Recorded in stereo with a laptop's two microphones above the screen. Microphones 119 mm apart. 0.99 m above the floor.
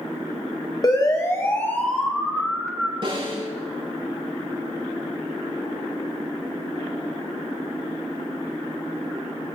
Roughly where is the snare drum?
Right.